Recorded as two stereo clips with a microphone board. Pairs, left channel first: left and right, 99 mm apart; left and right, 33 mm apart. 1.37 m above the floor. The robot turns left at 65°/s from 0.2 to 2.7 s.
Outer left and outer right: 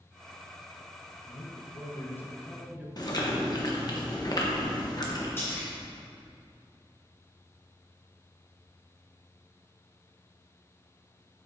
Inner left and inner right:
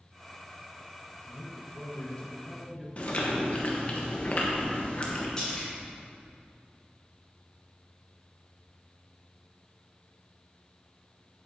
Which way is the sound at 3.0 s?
40° left (ahead or behind).